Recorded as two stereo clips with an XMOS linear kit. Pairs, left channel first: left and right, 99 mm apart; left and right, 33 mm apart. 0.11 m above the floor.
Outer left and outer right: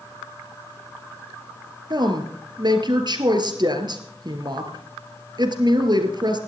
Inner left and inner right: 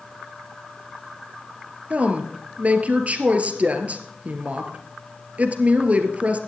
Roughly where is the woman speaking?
Right.